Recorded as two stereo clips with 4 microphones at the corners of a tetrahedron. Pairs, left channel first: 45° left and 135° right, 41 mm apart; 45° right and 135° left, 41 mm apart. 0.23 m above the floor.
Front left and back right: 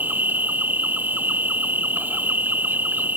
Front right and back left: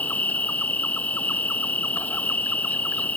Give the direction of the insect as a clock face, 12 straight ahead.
3 o'clock.